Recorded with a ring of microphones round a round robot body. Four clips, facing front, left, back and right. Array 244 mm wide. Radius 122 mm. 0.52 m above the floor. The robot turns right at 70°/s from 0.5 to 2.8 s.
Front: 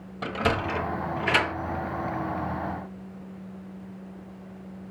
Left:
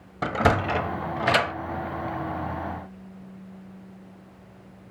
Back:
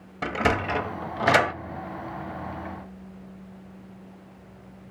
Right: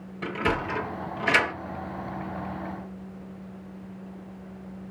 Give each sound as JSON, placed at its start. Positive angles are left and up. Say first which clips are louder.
{"t": 0.2, "sound": "a sliding door", "louder": "left 5 dB, back 2 dB", "azimuth_deg": 100, "distance_m": 0.8}